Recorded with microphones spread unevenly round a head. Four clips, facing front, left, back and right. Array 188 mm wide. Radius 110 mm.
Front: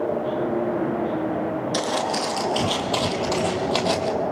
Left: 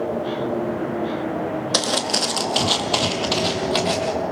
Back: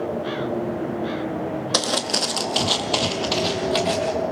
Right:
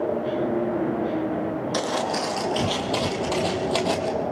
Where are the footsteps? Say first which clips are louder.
Even, even; 170° left, 2 m; by 4.1 s 100° right, 2.0 m.